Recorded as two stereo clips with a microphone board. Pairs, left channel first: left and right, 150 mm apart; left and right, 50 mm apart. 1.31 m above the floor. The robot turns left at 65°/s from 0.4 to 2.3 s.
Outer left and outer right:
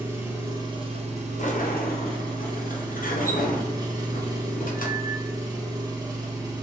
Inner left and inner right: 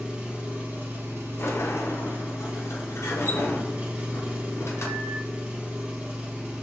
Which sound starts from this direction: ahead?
An engine running, at 0.0 s.